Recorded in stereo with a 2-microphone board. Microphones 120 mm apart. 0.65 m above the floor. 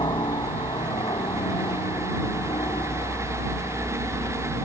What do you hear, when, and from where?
0.0 s a helicopter: 40° left (ahead or behind)